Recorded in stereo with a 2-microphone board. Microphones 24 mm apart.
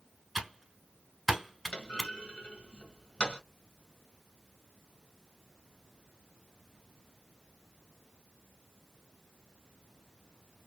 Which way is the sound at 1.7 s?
45° left (ahead or behind).